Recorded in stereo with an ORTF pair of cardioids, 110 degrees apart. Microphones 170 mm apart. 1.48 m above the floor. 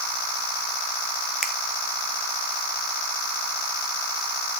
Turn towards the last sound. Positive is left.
turn(degrees=-5)